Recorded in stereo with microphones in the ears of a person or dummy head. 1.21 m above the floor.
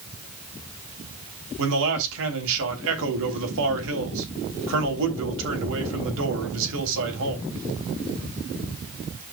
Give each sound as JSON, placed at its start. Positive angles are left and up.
{"t": 1.6, "sound": "a man speaking", "side_deg": -75, "distance_m": 3.5}